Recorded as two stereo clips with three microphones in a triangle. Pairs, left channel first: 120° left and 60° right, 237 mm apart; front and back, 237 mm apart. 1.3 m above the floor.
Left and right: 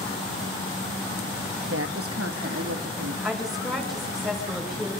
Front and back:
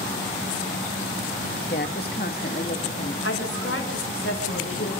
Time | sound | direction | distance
1.7 | a woman speaking | 45° right | 1.4 m
3.2 | a woman speaking | 30° left | 6.5 m